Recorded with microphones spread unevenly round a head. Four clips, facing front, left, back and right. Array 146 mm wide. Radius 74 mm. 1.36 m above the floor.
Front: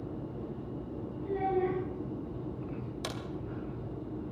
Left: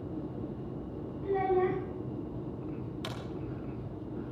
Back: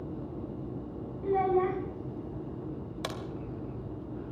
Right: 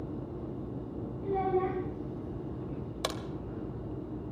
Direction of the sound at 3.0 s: 95° right.